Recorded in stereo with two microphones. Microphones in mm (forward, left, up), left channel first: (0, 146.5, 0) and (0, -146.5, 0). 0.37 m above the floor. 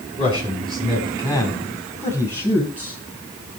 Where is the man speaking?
15° right (ahead or behind), 4.5 m; by 3.0 s 5° right (ahead or behind), 5.5 m.